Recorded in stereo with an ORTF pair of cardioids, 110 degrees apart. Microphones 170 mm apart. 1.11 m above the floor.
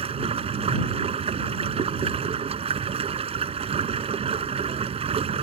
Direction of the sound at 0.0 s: 35° right.